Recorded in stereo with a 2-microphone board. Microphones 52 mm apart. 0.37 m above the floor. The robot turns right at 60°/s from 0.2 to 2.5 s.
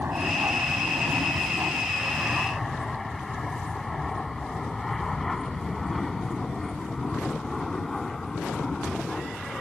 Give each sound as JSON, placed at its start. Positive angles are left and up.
{"t": 0.0, "sound": "an aircraft", "side_deg": -35}